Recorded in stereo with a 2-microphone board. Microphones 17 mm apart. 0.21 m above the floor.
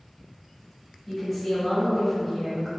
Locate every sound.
1.1 s a woman speaking: 10° right (ahead or behind), 1.0 m